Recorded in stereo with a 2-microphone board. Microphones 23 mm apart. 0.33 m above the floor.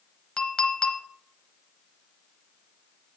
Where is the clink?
40° left (ahead or behind), 0.9 m.